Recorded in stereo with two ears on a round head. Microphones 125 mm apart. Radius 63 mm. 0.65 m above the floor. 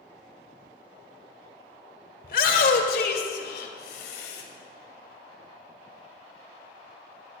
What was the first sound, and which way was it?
A shout, 60° left (ahead or behind).